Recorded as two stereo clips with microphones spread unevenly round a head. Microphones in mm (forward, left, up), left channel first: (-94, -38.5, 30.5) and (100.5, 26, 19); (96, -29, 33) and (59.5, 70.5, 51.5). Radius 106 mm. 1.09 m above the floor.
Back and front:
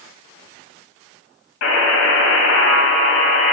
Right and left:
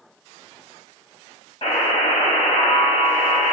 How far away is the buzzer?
About 2.5 m.